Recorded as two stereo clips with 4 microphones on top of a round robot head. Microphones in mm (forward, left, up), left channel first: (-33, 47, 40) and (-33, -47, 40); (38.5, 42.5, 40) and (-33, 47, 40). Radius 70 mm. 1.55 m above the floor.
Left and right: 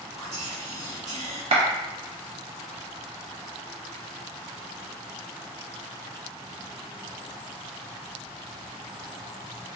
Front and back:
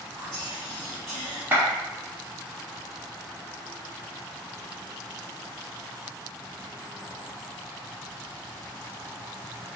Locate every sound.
0.2 s whispering: 95° right, 1.2 m
1.5 s a clap: 110° right, 0.9 m